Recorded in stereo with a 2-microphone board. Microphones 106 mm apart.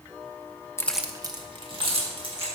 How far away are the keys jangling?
About 0.6 m.